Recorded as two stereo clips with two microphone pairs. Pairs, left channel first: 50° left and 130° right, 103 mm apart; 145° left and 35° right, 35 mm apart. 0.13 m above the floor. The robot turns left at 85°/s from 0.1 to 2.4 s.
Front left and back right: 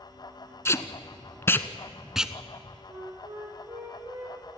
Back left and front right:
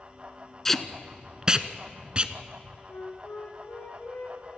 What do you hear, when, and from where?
0.7 s tape being pulled: 80° left, 0.8 m; by 2.8 s 70° right, 0.8 m
2.9 s a flute: 170° left, 5.5 m